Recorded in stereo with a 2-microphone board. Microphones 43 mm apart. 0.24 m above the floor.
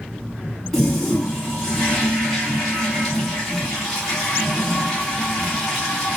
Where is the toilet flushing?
5° left (ahead or behind), 2 m.